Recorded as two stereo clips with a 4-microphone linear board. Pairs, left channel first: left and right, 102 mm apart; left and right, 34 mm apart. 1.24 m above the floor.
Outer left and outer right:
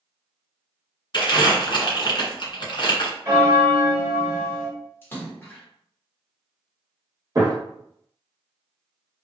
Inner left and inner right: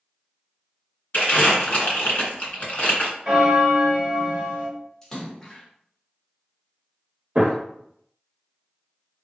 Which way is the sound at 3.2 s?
25° right (ahead or behind).